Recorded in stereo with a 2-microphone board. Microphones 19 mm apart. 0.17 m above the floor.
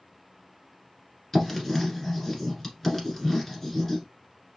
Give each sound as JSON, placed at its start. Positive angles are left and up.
{"t": 1.3, "sound": "writing", "side_deg": 20, "distance_m": 1.3}